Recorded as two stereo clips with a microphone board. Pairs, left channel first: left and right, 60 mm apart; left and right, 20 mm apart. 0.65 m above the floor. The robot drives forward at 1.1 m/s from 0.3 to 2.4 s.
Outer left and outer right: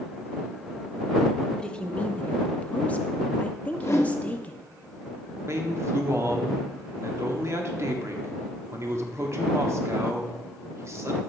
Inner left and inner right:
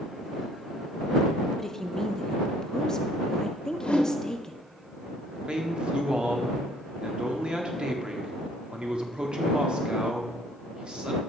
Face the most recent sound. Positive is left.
turn(degrees=-50)  # may be behind; listen again after turning